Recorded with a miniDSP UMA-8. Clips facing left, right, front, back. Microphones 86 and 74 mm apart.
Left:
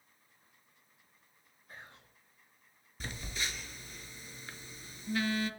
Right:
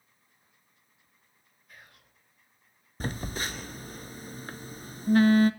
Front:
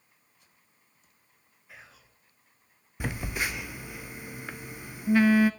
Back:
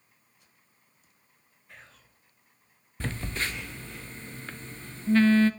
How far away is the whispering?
About 1.2 m.